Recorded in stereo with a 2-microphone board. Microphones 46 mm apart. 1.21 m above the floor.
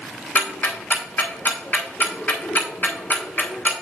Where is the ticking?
40° left (ahead or behind), 1.3 m.